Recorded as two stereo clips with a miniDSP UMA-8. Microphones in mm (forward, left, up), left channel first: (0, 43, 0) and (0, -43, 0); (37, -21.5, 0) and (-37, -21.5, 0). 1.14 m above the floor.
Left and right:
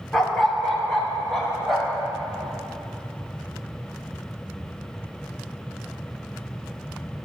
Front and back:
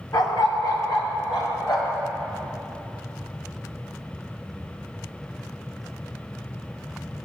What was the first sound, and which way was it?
A dog barking, straight ahead.